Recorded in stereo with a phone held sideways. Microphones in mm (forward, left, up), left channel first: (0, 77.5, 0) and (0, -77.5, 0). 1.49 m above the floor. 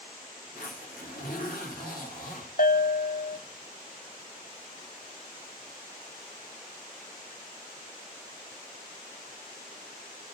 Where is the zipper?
65° left (ahead or behind), 4 m.